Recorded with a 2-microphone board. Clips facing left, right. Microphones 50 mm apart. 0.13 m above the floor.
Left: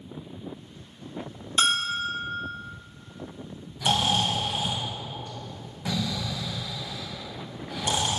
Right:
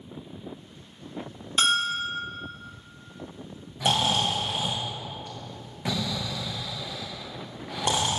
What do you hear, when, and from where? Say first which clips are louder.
1.6 s a bell: even; 15° right (ahead or behind), 2.5 m
3.8 s snoring: even; 55° right (ahead or behind), 2.5 m